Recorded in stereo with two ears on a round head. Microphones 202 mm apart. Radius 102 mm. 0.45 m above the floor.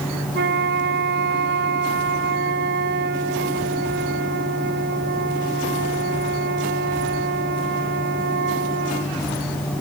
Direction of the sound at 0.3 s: 50° right (ahead or behind).